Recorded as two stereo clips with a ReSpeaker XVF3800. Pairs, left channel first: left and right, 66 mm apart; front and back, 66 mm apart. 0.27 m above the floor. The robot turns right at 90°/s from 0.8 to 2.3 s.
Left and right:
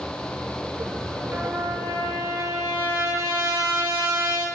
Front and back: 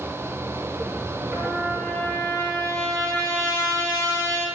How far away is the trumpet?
About 5 m.